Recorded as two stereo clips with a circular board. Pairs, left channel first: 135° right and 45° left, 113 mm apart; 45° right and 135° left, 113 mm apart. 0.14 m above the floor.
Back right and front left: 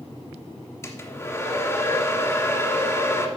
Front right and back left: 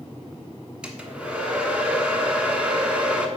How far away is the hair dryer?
About 1.3 m.